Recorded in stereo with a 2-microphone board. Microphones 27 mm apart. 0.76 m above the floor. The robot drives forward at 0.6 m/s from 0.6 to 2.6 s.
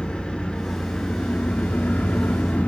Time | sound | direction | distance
0.0 | an engine running | 40° left (ahead or behind) | 1.1 m